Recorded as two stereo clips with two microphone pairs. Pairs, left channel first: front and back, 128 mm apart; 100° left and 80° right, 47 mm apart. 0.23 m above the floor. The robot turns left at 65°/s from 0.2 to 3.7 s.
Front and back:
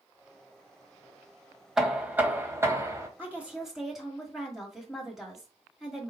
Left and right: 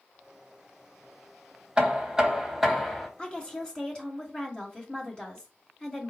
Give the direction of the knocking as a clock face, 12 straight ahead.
3 o'clock.